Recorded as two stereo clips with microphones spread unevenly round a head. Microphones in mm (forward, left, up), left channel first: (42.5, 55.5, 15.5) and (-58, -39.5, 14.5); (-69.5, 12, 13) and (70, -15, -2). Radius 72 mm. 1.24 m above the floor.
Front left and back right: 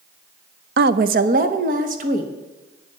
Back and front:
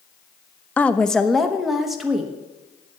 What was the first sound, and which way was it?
A woman speaking, 110° right.